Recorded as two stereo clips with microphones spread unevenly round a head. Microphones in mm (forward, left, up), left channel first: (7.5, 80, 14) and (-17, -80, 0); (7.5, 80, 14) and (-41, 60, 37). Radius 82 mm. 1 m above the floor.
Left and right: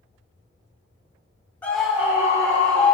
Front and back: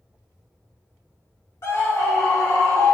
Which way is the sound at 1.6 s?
Straight ahead.